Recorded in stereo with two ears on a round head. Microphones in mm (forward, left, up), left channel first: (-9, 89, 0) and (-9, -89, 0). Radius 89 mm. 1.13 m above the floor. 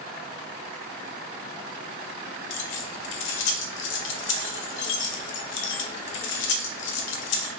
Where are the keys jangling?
60° left (ahead or behind), 0.6 m.